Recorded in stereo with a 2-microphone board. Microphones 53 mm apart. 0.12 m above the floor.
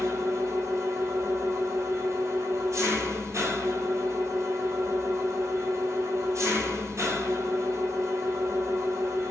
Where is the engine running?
65° right (ahead or behind), 1.1 m.